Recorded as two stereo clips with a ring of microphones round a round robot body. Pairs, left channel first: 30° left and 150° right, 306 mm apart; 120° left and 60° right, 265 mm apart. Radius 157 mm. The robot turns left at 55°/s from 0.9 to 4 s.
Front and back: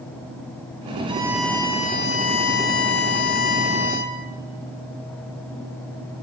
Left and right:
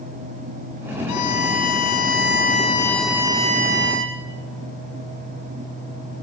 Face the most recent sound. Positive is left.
turn(degrees=-25)